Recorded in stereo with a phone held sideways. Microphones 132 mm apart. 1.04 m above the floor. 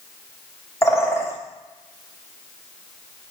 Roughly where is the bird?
Left.